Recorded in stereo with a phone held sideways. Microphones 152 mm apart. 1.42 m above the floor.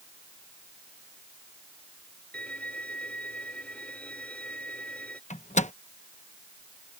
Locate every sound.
2.3 s a violin: 10° left (ahead or behind)
5.3 s a microwave: 50° left (ahead or behind)